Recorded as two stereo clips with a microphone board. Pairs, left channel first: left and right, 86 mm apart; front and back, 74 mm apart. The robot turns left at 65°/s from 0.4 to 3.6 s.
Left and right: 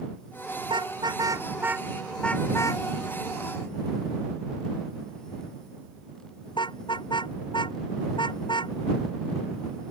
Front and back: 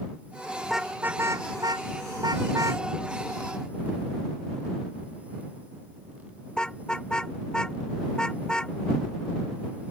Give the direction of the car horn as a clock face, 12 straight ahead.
3 o'clock.